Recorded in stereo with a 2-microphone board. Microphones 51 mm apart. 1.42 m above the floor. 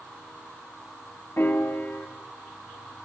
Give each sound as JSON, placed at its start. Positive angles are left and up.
{"t": 1.4, "sound": "a piano", "side_deg": 45, "distance_m": 0.7}